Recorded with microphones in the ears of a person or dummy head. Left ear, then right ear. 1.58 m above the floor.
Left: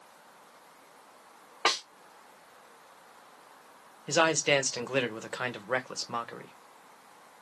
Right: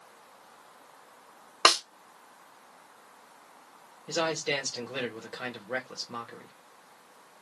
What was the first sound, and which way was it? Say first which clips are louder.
A snare drum: right 6 dB; 70° right (ahead or behind).